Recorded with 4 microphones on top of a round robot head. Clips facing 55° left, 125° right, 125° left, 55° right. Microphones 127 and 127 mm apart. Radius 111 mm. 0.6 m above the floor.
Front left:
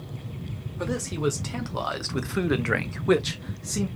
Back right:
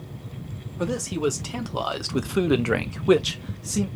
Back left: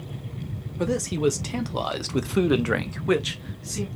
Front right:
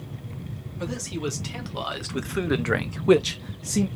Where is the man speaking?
160° left, 1.7 m; by 3.9 s 40° right, 1.0 m.